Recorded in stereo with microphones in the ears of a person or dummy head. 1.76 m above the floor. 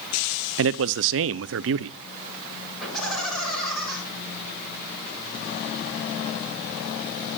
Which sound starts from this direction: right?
A man speaking, at 0.6 s.